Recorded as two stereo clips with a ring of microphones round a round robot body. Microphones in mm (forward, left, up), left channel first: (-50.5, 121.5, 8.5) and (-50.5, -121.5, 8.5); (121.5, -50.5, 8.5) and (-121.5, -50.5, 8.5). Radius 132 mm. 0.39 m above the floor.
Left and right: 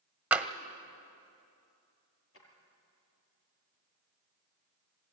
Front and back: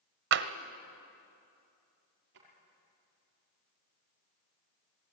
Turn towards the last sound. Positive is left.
turn(degrees=125)